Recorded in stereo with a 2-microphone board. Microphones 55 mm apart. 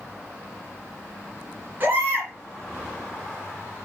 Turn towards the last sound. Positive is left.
turn(degrees=-30)  # may be behind; listen again after turning